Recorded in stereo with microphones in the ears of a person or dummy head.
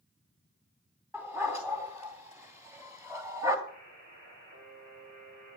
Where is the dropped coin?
No dropped coin in this recording.